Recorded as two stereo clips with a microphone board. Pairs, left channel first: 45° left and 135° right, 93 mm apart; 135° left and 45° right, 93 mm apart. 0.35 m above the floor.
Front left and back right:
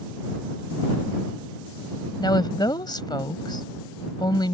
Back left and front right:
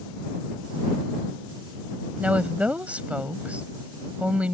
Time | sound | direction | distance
2.2 | a woman speaking | 25° left | ?